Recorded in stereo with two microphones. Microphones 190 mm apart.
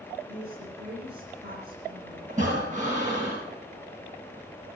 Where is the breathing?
40° right (ahead or behind), 9.5 m.